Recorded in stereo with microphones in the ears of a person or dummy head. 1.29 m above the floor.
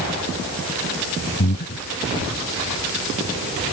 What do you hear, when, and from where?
1.4 s breathing: 45° left (ahead or behind)